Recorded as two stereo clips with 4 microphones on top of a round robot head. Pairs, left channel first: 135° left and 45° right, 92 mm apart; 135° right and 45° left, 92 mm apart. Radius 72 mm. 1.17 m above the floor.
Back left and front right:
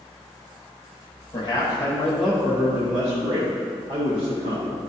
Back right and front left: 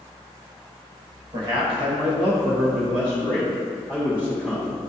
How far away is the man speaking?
About 1.5 m.